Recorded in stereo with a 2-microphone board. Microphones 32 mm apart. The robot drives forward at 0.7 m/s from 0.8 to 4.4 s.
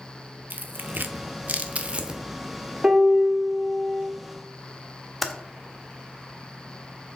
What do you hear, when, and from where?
0.5 s tearing paper: 70° right (ahead or behind), 0.5 m; by 2.2 s 30° right (ahead or behind), 1.0 m
2.8 s a piano: 30° right (ahead or behind), 1.6 m; by 4.0 s 40° right (ahead or behind), 1.3 m
5.2 s typing on a keyboard: centre (ahead or behind), 0.7 m